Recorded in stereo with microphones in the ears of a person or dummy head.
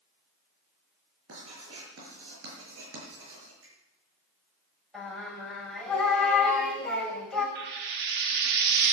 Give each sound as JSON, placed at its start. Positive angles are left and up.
{"t": 1.3, "sound": "writing", "side_deg": -80, "distance_m": 7.0}
{"t": 3.6, "sound": "a finger snap", "side_deg": -75, "distance_m": 9.0}
{"t": 4.9, "sound": "singing", "side_deg": 5, "distance_m": 5.0}
{"t": 7.5, "sound": "frying", "side_deg": -60, "distance_m": 2.5}